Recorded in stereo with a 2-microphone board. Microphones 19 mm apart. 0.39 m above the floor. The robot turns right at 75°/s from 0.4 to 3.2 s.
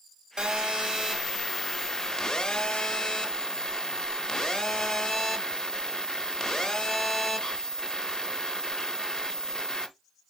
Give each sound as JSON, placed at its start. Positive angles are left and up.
{"t": 0.4, "sound": "a phone buzzing", "azimuth_deg": -90, "distance_m": 0.7}